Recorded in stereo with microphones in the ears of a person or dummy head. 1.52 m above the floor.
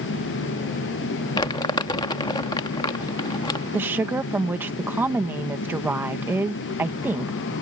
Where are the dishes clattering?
I don't hear dishes clattering.